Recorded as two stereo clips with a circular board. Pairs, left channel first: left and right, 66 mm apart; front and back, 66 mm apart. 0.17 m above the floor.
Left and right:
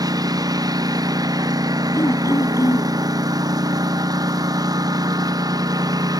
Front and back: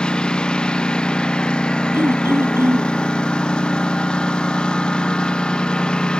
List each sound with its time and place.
0.0 s a lawn mower: 75° right
1.9 s throat clearing: 130° left